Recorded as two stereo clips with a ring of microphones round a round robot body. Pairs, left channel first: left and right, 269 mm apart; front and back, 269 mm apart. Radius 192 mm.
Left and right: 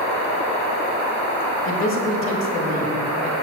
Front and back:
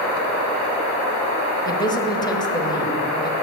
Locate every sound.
1.6 s a man speaking: 70° left, 1.2 m